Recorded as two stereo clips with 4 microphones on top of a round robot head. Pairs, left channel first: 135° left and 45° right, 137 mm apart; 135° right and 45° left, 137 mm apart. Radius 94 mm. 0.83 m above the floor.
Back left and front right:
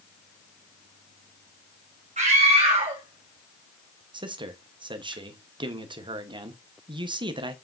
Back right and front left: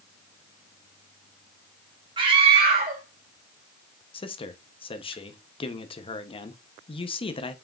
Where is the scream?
10° right, 1.5 m; by 5.1 s 35° left, 2.5 m.